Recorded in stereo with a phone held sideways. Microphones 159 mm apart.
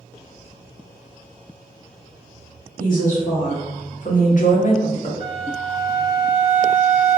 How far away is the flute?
About 1.4 m.